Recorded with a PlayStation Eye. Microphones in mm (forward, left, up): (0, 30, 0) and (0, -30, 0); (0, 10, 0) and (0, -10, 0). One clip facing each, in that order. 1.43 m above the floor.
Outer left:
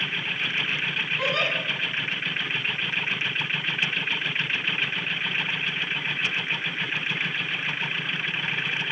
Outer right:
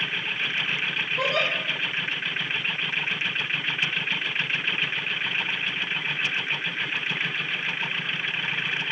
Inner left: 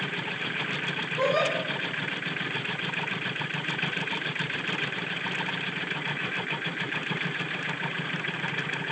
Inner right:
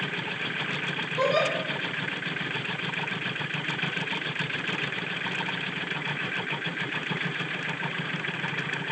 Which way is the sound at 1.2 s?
75° right (ahead or behind).